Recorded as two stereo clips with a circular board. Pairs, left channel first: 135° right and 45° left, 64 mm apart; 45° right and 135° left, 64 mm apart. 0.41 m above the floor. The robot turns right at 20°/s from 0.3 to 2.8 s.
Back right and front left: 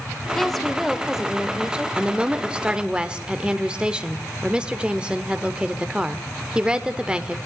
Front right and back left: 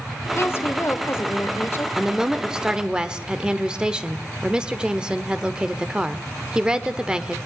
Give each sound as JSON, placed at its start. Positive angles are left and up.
{"t": 0.3, "sound": "a woman speaking", "azimuth_deg": -55, "distance_m": 1.2}
{"t": 2.0, "sound": "a woman speaking", "azimuth_deg": 70, "distance_m": 0.8}